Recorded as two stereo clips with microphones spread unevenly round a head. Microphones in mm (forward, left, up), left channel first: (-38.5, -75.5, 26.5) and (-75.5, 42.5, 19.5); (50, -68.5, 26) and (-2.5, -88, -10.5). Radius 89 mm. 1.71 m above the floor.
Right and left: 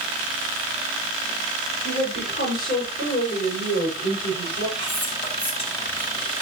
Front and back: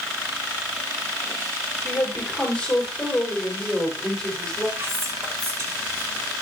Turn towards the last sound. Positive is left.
turn(degrees=-115)